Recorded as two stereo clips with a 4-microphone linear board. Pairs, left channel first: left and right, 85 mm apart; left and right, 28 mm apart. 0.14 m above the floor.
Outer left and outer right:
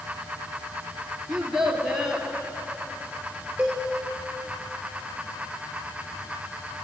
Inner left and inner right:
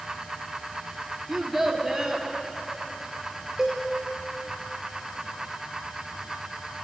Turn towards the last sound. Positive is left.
turn(degrees=-15)  # may be behind; listen again after turning